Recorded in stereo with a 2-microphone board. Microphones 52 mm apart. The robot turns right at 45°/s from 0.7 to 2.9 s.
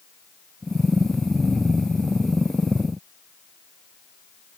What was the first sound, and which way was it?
Only background noise.